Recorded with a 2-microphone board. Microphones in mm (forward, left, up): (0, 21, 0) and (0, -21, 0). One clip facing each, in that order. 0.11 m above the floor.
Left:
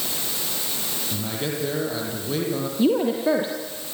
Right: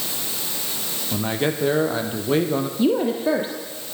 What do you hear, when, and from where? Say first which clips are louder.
1.1 s a man speaking: right 7 dB; 35° right (ahead or behind), 4.5 m
2.8 s a woman speaking: left 1 dB; centre (ahead or behind), 2.5 m